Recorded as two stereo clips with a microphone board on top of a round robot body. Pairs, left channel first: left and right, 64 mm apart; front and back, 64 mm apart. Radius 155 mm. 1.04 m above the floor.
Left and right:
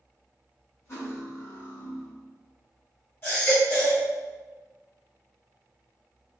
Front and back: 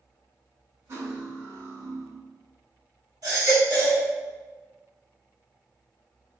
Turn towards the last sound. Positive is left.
turn(degrees=145)